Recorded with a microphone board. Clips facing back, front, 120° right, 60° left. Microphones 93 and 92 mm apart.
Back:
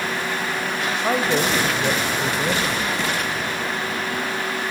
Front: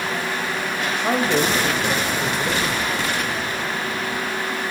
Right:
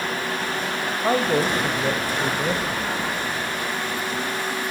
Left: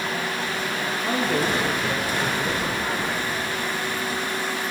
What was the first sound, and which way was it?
A man speaking, 95° right.